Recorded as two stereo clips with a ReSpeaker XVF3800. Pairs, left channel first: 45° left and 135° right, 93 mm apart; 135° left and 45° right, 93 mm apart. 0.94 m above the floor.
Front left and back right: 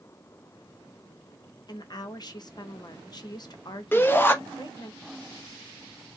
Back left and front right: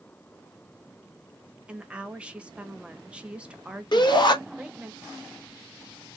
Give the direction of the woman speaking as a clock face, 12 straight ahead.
11 o'clock.